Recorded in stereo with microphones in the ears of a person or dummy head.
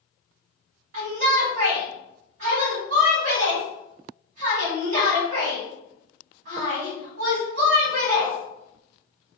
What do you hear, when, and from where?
0.9 s a shout: 60° right (ahead or behind), 1.8 m